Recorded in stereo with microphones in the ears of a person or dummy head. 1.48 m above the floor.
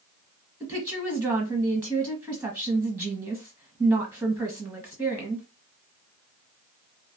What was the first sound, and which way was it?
A woman speaking, 15° right (ahead or behind).